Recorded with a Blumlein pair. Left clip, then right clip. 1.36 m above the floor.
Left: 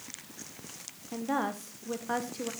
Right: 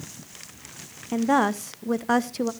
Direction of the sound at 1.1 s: 60° right.